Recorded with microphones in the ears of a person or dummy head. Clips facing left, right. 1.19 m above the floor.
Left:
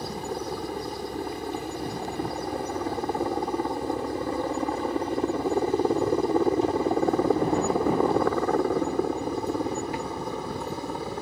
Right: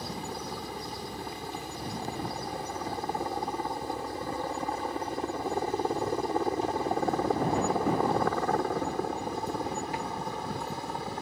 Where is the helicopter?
45° left (ahead or behind); by 11.2 s 70° left (ahead or behind).